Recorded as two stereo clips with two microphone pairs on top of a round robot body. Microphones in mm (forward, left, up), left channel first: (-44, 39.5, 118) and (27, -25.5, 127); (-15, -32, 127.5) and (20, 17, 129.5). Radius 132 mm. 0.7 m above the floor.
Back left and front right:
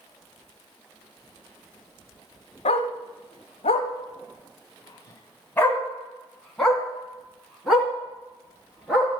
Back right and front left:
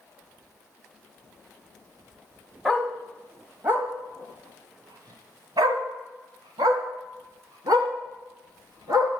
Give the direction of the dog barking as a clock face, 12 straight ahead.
7 o'clock.